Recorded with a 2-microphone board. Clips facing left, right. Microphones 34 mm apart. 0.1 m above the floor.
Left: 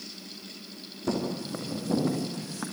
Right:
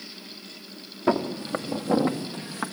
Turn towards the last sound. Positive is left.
turn(degrees=-25)  # may be behind; listen again after turning